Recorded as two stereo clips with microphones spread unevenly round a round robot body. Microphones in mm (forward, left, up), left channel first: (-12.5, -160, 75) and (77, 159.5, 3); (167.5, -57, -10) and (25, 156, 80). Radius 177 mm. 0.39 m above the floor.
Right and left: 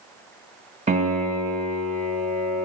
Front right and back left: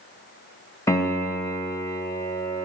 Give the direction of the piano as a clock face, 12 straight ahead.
12 o'clock.